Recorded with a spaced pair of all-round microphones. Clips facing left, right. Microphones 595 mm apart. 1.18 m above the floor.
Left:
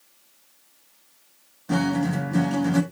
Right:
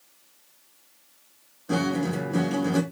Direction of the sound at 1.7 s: 20° left (ahead or behind).